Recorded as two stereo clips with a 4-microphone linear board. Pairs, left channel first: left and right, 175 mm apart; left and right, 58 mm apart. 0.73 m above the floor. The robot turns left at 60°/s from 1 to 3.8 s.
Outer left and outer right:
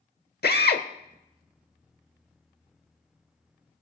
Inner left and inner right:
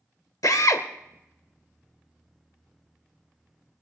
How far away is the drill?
About 0.9 m.